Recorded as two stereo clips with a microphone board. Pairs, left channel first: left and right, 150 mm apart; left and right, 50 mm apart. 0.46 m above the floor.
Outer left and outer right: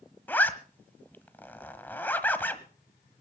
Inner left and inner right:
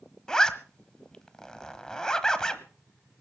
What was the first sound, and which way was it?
A zipper, 10° left (ahead or behind).